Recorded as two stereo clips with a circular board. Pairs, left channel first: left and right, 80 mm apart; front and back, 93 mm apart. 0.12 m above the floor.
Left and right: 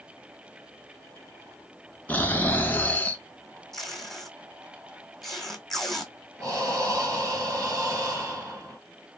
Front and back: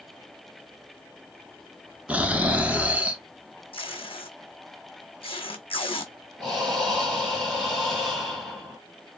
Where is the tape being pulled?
5° left, 1.0 m.